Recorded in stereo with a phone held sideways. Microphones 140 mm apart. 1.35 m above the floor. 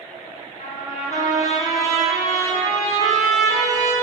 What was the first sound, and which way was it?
A trumpet, 55° left (ahead or behind).